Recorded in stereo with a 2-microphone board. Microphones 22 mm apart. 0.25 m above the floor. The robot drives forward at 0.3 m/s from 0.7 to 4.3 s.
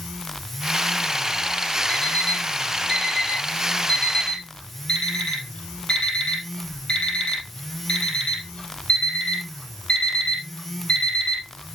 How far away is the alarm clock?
About 3.5 m.